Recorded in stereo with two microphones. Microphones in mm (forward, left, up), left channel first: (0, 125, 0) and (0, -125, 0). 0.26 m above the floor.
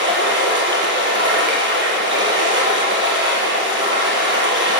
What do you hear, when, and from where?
0.0 s running water: 50° right (ahead or behind), 1.4 m